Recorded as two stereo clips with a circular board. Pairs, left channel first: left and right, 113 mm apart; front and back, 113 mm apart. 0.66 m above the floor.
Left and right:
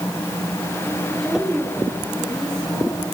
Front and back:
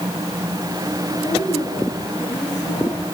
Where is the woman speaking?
5° left, 6 m.